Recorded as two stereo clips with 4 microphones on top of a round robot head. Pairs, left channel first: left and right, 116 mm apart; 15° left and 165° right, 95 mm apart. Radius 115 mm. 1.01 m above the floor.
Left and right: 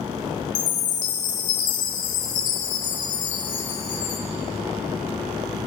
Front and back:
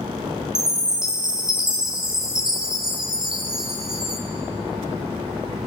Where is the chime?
110° left, 1.8 m.